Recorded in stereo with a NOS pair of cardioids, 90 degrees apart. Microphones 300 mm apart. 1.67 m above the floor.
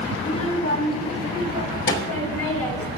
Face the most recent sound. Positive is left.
turn(degrees=50)